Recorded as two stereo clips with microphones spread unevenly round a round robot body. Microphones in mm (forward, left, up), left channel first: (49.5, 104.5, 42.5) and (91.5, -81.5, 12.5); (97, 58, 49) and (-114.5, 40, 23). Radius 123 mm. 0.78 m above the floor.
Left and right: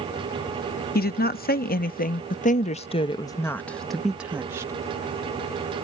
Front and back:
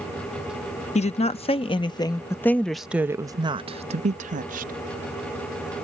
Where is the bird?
I don't hear a bird.